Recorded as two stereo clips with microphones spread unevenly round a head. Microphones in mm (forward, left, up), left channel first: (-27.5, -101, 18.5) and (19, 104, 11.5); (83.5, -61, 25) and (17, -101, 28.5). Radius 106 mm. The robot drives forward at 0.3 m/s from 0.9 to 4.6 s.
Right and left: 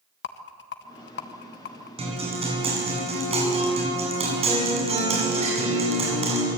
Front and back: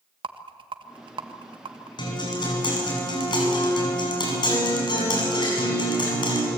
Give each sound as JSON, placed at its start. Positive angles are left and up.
{"t": 0.2, "sound": "a rattle", "azimuth_deg": -140, "distance_m": 1.4}
{"t": 2.0, "sound": "a guitar", "azimuth_deg": 15, "distance_m": 9.5}